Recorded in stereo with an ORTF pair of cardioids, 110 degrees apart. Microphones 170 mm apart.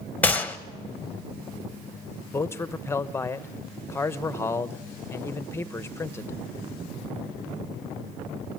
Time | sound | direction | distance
0.2 | a gunshot | 10° left | 1.1 m
2.3 | a man speaking | 15° left | 0.8 m